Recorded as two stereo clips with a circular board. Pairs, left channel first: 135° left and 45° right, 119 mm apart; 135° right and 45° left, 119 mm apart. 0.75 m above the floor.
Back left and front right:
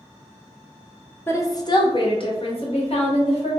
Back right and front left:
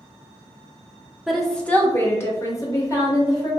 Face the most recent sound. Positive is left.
turn(degrees=165)